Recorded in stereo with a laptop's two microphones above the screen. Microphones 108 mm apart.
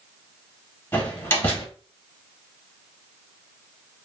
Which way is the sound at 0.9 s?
20° left (ahead or behind).